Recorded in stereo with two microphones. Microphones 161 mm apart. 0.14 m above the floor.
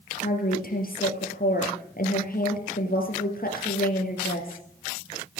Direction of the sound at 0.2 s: 65° left (ahead or behind).